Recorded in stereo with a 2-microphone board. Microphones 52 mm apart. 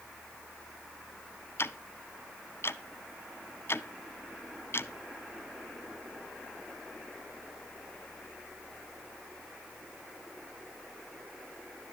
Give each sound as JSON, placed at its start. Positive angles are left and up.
{"t": 1.6, "sound": "ticking", "side_deg": 55, "distance_m": 0.7}